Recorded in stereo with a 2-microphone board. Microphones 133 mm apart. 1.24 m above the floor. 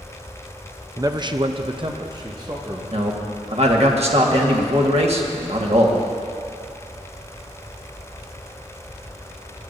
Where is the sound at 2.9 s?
50° right (ahead or behind), 1.5 m.